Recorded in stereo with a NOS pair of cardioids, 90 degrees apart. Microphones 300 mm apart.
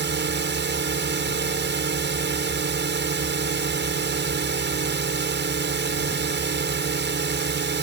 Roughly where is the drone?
Ahead right.